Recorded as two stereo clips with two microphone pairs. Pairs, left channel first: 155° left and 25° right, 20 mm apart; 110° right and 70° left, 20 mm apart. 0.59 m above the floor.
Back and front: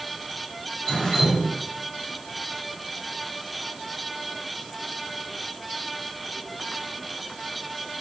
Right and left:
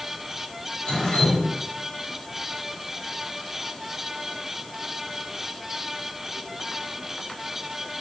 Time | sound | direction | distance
0.9 | dripping | 150° right | 1.7 m